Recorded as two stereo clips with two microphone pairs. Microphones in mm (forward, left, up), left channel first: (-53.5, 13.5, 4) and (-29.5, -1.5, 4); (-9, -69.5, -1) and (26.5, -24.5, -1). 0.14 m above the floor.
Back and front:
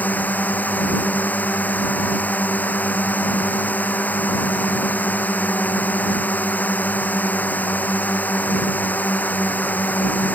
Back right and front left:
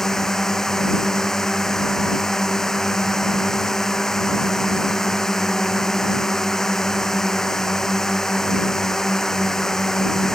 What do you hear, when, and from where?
0.0 s a drone: 150° left